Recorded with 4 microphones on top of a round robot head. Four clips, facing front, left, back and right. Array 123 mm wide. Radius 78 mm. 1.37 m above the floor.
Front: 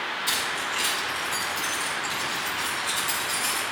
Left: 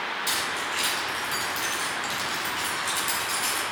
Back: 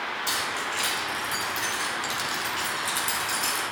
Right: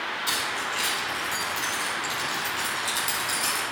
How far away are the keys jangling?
About 3 m.